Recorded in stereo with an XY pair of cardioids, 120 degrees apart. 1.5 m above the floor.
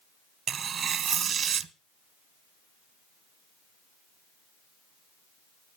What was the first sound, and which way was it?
Tearing paper, 50° right.